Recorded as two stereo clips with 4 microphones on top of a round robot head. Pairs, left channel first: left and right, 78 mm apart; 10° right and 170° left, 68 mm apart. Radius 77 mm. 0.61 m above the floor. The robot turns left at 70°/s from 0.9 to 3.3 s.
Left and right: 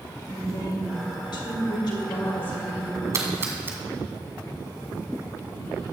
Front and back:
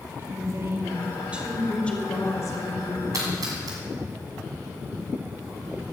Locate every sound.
0.2 s a woman speaking: 130° left, 3 m; by 3.0 s 20° right, 3 m
3.1 s a splash: 140° right, 2 m; by 3.8 s 150° right, 2 m